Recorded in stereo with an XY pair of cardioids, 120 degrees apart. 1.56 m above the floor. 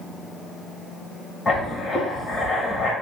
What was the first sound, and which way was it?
Writing, 25° left.